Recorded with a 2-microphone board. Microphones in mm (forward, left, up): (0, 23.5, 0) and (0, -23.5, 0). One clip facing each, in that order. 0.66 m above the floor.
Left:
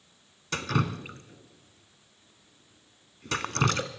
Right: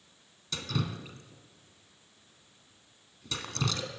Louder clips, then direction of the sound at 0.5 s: Left 6 dB; 55° left (ahead or behind).